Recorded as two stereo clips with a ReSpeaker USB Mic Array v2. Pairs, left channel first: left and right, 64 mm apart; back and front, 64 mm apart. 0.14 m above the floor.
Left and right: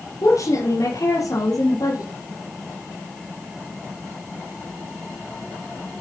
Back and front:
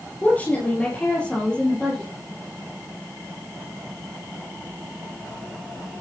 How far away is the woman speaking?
About 4 m.